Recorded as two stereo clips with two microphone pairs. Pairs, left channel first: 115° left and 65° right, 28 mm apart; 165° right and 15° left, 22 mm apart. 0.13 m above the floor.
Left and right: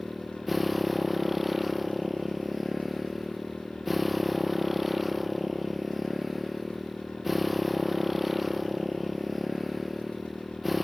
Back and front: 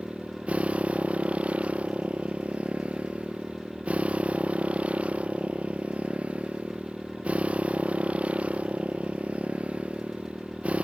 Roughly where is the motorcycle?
Ahead.